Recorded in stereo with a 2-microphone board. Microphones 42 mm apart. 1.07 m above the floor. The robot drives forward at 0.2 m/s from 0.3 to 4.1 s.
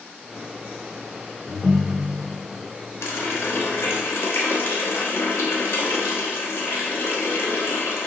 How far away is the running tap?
About 0.9 m.